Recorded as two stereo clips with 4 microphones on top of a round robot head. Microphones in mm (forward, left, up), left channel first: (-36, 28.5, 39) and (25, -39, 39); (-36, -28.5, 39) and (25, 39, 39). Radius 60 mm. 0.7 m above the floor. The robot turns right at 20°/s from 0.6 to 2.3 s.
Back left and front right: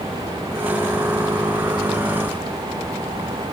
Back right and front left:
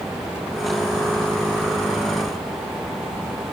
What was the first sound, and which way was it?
Only background noise.